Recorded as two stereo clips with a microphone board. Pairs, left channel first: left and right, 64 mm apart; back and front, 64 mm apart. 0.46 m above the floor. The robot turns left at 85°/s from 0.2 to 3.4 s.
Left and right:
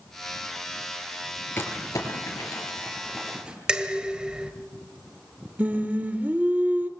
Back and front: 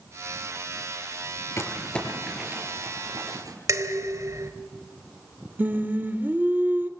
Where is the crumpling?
140° left, 6 m; by 3.6 s 15° right, 6 m.